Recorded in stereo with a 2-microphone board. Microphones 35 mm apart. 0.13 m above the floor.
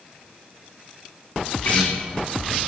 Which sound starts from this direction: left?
A guitar, at 1.6 s.